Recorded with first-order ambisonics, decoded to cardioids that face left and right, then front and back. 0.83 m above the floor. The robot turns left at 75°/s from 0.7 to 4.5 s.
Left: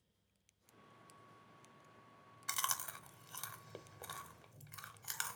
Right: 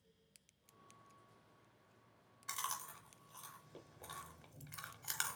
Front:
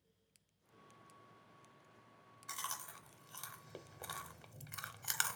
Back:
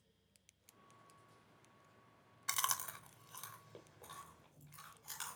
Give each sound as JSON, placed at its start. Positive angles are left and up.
{"t": 2.5, "sound": "chewing", "azimuth_deg": 150, "distance_m": 0.7}